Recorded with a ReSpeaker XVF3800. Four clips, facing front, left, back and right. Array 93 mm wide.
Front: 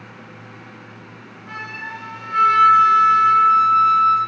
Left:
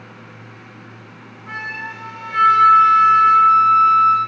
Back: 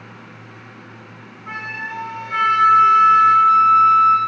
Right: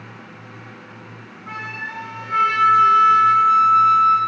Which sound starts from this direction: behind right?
A flute, at 1.5 s.